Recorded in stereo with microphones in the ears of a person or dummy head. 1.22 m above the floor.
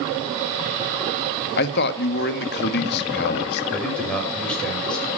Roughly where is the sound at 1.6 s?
Left.